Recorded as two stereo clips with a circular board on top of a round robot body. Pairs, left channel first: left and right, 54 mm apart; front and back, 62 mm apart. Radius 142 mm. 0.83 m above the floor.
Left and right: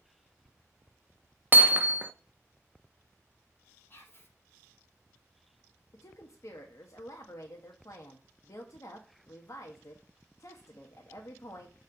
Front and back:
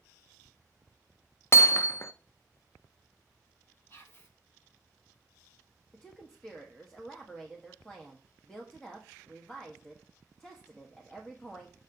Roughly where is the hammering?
Ahead right.